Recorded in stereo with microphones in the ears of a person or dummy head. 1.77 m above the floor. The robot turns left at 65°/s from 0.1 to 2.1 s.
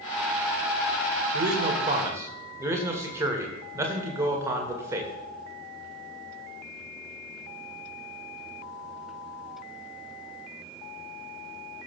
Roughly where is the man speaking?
Right.